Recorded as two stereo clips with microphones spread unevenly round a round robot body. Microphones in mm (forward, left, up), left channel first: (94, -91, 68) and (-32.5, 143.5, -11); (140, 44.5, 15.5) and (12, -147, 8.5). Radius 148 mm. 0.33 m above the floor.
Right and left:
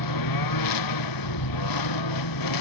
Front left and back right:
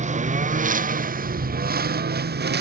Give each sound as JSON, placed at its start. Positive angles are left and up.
{"t": 0.0, "sound": "a lawn mower", "azimuth_deg": -65}